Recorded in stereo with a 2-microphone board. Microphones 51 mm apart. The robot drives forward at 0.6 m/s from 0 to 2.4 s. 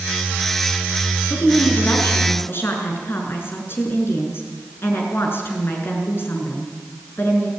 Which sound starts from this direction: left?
A woman speaking, at 1.3 s.